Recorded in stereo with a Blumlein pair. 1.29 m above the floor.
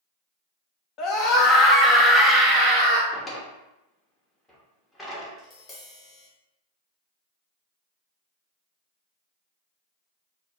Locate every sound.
1.0 s a scream: 35° left, 1.1 m; by 3.0 s 35° right, 0.7 m
3.1 s a drawer: 10° left, 1.2 m
5.4 s tapping: 15° left, 1.6 m